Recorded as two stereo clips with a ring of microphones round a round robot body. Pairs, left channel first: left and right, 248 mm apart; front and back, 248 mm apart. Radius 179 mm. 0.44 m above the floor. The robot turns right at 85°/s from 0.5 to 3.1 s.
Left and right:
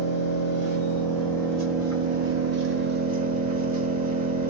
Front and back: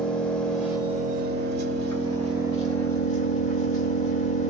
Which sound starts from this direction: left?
An engine running, at 0.0 s.